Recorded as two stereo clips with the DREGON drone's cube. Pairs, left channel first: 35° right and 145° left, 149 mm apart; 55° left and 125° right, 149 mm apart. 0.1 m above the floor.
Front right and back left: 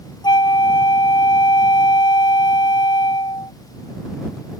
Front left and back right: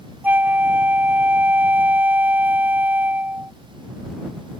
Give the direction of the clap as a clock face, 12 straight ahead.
No clap in this recording.